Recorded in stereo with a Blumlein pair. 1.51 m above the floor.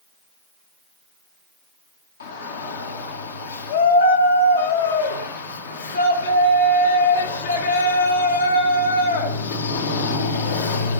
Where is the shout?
65° left, 1.7 m.